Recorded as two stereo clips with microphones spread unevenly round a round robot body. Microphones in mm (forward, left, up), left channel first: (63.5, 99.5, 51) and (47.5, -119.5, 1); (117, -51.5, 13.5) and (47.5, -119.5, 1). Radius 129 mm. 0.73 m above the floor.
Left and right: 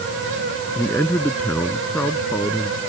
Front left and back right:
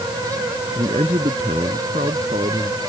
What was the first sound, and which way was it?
A man speaking, 170° left.